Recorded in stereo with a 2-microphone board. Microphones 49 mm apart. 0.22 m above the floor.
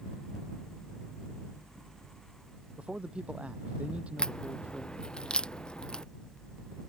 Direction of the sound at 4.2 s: 20° left (ahead or behind).